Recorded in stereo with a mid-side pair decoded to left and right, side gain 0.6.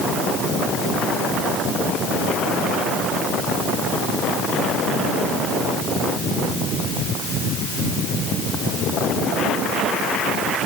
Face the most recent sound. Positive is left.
No sound to turn to.